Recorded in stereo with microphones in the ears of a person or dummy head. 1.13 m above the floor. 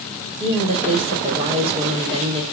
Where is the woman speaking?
30° right (ahead or behind), 3 m.